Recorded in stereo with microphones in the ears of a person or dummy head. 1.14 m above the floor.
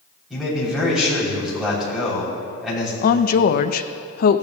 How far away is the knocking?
No knocking in this recording.